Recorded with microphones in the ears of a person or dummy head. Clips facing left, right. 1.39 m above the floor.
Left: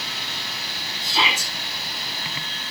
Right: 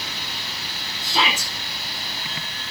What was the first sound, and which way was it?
A shout, 55° right (ahead or behind).